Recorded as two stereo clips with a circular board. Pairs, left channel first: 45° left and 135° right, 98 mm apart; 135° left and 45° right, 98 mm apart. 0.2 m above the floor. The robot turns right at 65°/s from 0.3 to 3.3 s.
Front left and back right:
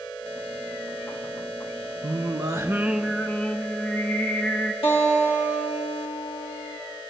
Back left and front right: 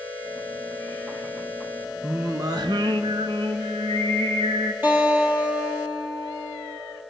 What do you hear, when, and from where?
2.0 s singing: 115° right, 0.6 m; by 4.7 s 30° right, 0.6 m
4.8 s a guitar: 25° left, 3 m